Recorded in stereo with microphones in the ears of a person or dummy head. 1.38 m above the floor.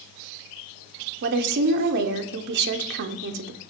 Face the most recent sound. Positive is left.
turn(degrees=-55)  # may be behind; listen again after turning